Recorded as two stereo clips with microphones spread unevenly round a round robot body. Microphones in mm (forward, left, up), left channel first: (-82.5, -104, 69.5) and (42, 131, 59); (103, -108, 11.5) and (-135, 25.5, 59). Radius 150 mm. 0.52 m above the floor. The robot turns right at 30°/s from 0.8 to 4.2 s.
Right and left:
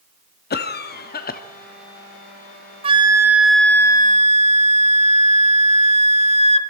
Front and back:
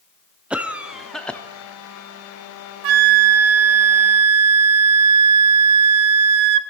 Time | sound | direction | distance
0.5 | a cough | 110° right | 0.7 m
2.8 | a flute | 130° left | 0.7 m